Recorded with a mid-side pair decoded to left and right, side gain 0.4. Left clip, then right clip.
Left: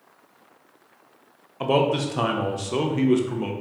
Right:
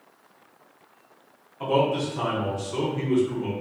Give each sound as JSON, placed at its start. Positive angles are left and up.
{"t": 1.6, "sound": "a man speaking", "azimuth_deg": 65, "distance_m": 0.5}